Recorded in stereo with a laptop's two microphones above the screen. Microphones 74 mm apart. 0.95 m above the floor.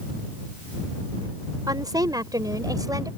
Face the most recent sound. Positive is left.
turn(degrees=-55)  # may be behind; listen again after turning